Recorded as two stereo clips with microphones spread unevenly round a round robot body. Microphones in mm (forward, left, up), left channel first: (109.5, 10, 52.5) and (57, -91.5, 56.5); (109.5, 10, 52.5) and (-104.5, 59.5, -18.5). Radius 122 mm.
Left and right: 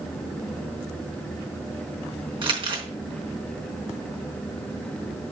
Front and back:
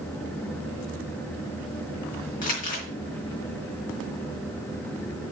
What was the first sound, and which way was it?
Crumpling, 75° right.